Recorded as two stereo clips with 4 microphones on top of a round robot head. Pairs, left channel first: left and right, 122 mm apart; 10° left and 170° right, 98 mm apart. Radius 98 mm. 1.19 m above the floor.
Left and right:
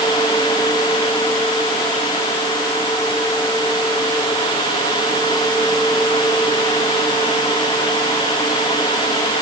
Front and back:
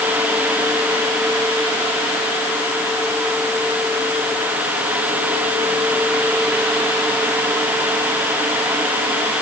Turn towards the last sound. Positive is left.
No sound to turn to.